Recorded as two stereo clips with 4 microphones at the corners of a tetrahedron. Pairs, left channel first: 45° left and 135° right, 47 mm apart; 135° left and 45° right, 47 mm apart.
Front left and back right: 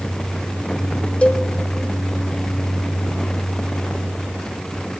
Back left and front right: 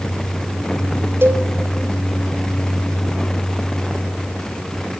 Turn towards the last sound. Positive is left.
turn(degrees=-15)